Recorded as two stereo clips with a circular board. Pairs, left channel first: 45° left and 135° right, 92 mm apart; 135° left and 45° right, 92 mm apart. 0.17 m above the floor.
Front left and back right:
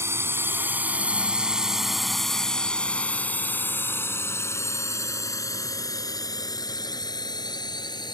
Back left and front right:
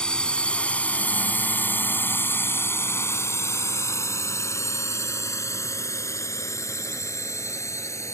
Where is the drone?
155° right; by 8.2 s 80° left.